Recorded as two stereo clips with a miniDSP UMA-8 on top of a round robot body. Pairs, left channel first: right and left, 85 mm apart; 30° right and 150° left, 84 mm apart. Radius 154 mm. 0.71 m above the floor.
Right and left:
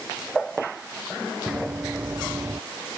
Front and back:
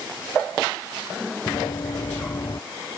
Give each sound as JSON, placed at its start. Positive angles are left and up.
{"t": 1.5, "sound": "running footsteps", "azimuth_deg": 15}